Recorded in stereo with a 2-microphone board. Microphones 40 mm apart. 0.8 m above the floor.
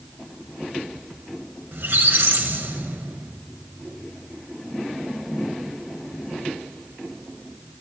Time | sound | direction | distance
1.7 | a squeak | 70° right (ahead or behind) | 1.1 m